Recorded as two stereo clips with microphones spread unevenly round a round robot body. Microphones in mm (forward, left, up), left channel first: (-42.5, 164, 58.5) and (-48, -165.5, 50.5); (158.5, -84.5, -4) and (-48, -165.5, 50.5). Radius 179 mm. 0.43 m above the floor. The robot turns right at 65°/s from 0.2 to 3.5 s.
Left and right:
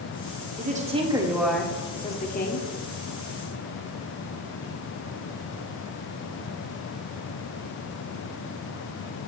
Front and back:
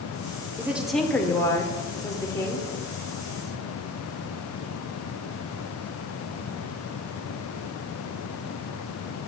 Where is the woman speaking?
65° right, 1.2 m; by 2.7 s 75° left, 1.2 m.